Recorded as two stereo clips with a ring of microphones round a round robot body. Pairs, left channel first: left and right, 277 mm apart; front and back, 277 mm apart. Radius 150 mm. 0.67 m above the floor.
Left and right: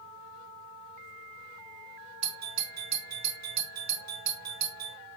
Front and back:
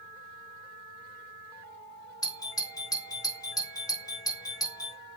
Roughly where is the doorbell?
Right.